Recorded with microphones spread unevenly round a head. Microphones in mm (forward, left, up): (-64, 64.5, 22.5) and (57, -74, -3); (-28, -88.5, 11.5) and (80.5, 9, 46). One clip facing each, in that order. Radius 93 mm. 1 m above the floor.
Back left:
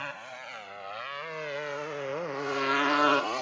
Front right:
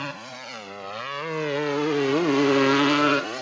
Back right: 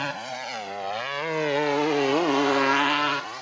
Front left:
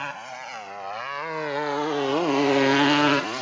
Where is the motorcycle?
85° right; by 3.4 s 30° left.